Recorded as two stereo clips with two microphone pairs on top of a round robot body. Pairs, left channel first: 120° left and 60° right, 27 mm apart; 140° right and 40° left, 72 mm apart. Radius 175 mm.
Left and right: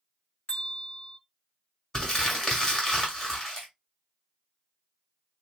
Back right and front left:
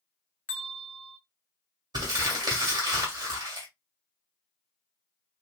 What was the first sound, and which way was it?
A bell, 155° left.